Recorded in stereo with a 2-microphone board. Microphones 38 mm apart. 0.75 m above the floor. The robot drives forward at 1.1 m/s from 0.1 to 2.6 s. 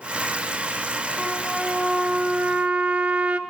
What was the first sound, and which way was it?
A trumpet, 15° right (ahead or behind).